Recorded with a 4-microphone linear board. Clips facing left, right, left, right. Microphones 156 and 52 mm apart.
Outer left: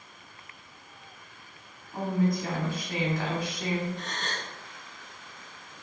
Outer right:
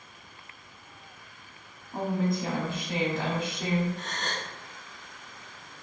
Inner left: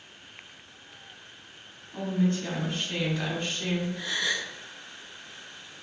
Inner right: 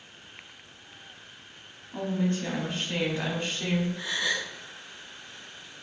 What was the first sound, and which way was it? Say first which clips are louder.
A woman speaking: outer left 1 dB, inner left 1 dB; 25° right (ahead or behind).